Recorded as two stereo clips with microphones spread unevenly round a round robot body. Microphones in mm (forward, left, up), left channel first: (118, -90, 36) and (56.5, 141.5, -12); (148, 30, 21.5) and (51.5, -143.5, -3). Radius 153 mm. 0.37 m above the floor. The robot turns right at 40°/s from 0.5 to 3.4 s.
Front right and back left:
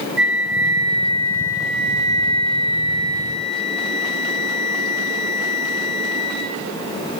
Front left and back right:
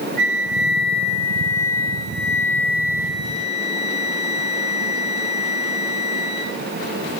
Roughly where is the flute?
Ahead left.